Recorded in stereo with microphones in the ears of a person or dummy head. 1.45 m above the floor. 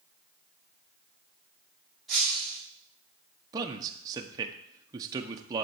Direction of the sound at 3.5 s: 20° right (ahead or behind).